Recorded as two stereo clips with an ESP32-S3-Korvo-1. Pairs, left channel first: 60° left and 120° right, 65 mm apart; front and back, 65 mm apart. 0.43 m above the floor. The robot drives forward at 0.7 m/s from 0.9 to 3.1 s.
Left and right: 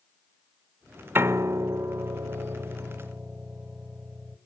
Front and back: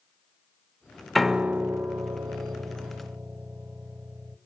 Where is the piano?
85° right, 0.5 m; by 4.4 s 165° right, 1.4 m.